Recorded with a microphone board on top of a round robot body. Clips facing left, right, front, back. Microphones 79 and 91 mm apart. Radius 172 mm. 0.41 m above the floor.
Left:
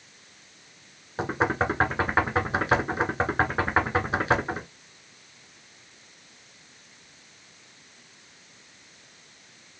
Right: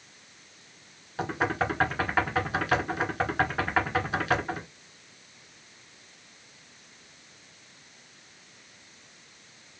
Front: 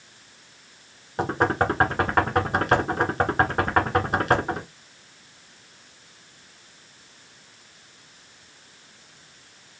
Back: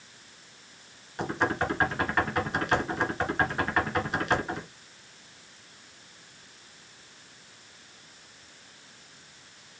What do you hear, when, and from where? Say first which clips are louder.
1.2 s knocking: left 3 dB, front 6 dB; 25° left, 2 m